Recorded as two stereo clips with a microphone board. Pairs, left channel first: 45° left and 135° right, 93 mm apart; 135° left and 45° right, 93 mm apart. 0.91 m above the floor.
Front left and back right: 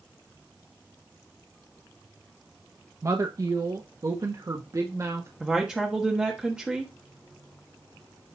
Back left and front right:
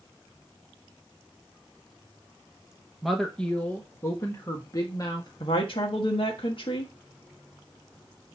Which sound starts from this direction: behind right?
A woman speaking, at 3.0 s.